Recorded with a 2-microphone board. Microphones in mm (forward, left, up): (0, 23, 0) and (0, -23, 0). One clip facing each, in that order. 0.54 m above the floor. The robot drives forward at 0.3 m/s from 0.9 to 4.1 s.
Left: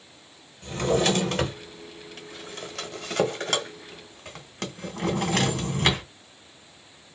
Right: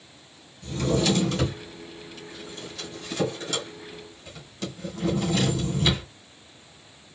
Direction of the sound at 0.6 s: 55° left (ahead or behind).